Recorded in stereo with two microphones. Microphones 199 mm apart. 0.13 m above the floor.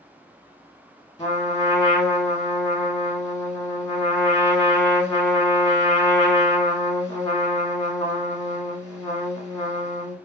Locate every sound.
1.2 s a trumpet: 15° left (ahead or behind), 1.1 m